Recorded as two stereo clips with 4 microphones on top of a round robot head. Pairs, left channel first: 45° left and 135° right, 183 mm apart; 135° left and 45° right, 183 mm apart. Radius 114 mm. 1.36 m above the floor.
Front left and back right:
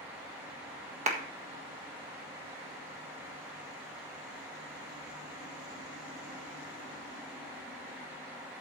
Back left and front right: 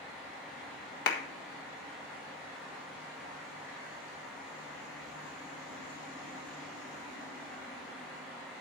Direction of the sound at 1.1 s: 170° left.